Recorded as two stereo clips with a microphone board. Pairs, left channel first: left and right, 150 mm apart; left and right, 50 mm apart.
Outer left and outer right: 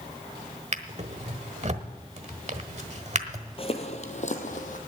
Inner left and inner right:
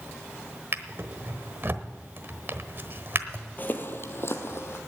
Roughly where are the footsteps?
Left.